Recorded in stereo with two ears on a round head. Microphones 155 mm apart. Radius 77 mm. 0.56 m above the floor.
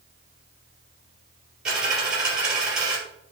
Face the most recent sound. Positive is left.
turn(degrees=-5)  # may be behind; listen again after turning